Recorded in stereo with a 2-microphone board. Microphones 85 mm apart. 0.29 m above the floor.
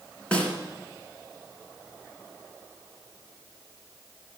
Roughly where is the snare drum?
Centre.